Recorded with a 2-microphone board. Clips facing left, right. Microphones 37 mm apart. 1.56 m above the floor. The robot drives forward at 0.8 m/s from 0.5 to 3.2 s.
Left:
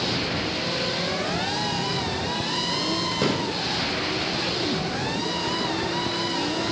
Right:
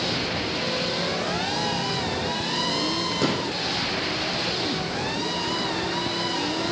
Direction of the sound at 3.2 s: 5° left (ahead or behind).